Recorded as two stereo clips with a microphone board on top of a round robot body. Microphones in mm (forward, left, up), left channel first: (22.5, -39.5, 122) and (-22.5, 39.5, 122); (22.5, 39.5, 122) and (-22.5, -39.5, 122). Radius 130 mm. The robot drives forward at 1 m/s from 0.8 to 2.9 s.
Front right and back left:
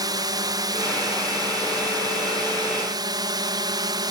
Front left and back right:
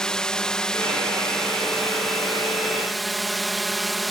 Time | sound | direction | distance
0.0 | a drone | 140° left | ?